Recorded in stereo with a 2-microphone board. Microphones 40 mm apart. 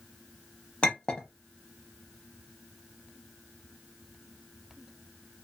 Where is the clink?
25° left (ahead or behind), 0.7 m.